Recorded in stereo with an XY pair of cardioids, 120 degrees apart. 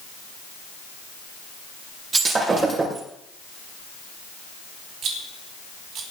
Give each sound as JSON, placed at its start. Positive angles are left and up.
{"t": 2.1, "sound": "breaking glass", "azimuth_deg": -35, "distance_m": 7.5}
{"t": 5.0, "sound": "a rattle", "azimuth_deg": -65, "distance_m": 4.0}